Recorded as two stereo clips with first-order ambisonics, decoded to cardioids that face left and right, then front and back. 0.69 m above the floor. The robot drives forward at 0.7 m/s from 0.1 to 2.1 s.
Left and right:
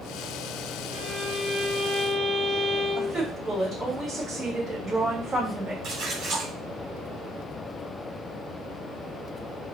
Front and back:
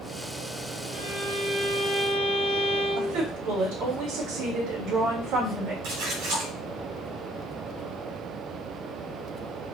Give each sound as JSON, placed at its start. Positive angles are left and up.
{"t": 0.9, "sound": "a violin", "azimuth_deg": -150, "distance_m": 3.0}
{"t": 3.0, "sound": "a woman speaking", "azimuth_deg": -165, "distance_m": 2.5}
{"t": 5.8, "sound": "a splash", "azimuth_deg": -155, "distance_m": 2.5}